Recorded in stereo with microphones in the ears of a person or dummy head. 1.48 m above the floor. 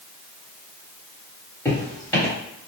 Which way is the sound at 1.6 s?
20° left (ahead or behind).